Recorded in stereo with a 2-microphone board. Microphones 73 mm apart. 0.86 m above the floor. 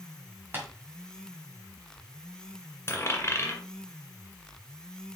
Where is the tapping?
30° right (ahead or behind), 2.5 m.